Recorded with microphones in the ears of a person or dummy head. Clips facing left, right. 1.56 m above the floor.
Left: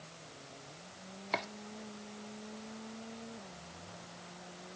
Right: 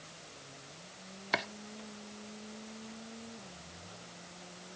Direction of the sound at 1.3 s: 10° right (ahead or behind).